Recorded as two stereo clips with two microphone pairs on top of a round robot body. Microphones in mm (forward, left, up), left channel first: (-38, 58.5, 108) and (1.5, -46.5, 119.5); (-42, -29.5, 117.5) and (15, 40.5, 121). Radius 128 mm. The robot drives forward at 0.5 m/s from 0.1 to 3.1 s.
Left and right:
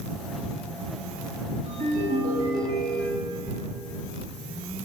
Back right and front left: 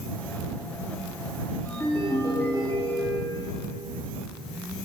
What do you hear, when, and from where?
1.6 s a ringtone: 70° right, 3.5 m; by 3.4 s 80° right, 3.5 m